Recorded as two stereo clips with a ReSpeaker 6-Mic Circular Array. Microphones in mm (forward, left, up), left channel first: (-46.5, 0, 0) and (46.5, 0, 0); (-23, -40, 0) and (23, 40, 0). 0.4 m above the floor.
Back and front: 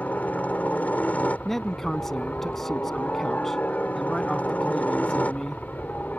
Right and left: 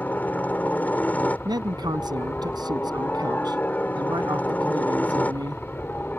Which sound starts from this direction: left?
A man speaking, at 1.4 s.